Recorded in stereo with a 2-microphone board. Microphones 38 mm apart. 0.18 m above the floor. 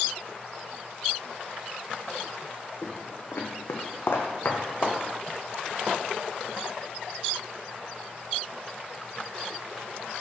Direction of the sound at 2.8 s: 45° left (ahead or behind).